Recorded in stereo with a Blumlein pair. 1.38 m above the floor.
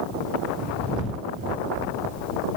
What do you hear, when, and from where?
Only background noise.